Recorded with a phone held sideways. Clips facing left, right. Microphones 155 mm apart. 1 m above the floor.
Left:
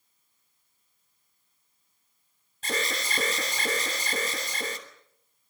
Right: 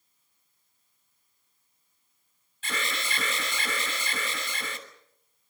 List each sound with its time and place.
2.6 s an alarm: 40° left (ahead or behind), 3.5 m